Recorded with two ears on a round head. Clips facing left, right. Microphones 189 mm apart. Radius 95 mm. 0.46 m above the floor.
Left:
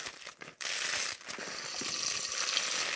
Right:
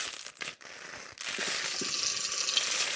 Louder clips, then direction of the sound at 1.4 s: Right 5 dB; 15° right (ahead or behind).